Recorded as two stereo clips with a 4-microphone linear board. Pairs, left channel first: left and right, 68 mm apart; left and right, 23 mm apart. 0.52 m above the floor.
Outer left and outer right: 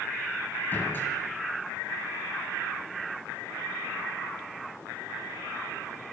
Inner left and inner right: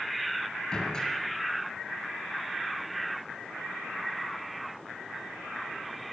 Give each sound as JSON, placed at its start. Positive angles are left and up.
{"t": 0.7, "sound": "a door slam", "side_deg": 30, "distance_m": 8.0}